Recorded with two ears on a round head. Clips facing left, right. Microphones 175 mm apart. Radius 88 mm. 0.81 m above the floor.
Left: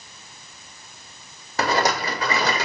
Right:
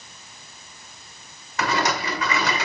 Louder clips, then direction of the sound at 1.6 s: Left 2 dB; 35° left (ahead or behind).